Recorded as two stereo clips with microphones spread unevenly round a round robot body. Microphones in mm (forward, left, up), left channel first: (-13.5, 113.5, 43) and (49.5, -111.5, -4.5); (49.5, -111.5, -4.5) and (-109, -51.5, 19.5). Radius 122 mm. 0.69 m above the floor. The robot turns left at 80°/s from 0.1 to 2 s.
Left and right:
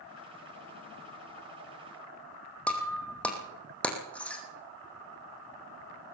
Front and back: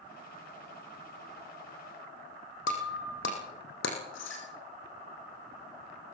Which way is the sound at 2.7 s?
25° left.